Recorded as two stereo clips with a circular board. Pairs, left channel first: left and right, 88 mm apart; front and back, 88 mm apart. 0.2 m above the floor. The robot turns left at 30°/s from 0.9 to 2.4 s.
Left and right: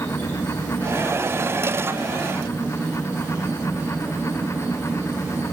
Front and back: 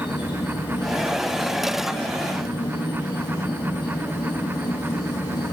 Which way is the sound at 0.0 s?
20° left.